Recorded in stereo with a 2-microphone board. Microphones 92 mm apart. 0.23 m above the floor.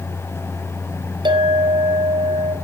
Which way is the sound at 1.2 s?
65° right (ahead or behind).